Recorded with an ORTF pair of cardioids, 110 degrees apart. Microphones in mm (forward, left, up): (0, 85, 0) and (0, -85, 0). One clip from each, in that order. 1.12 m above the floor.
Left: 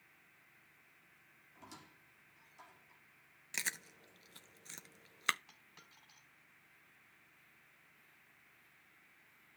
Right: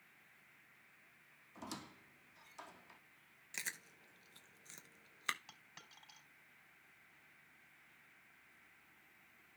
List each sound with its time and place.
1.6 s a squeak: 55° right, 1.1 m
3.5 s chewing: 25° left, 0.7 m
5.5 s a dropped coin: 30° right, 4 m